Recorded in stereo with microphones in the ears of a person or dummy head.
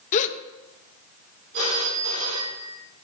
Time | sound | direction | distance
0.1 | a gasp | 40° left (ahead or behind) | 1.0 m
1.5 | a phone ringing | 70° right (ahead or behind) | 4 m